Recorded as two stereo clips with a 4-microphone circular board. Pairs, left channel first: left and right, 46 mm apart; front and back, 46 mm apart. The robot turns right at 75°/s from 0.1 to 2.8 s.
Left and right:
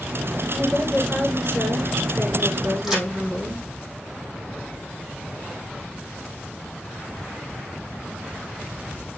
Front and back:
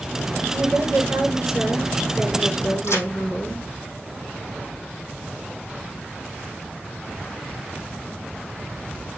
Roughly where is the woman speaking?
Behind left.